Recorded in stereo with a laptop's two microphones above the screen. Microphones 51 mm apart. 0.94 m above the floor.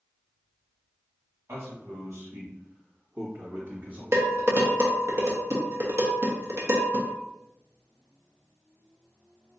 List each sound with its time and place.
1.5 s a man speaking: 60° right (ahead or behind), 1.7 m; by 4.0 s 45° right (ahead or behind), 1.4 m
4.1 s dishes clattering: 55° right (ahead or behind), 0.8 m